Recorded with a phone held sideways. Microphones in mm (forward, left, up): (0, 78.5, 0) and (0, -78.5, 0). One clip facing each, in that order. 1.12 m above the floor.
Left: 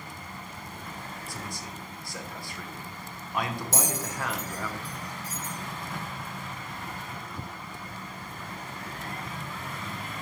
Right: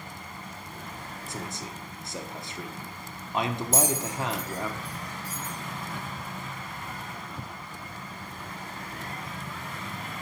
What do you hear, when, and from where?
1.3 s a man speaking: 20° right (ahead or behind), 0.8 m
3.7 s a bell: 75° left (ahead or behind), 2 m